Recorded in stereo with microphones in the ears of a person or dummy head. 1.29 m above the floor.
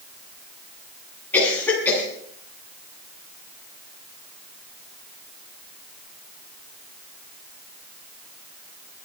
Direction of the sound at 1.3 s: 10° left (ahead or behind).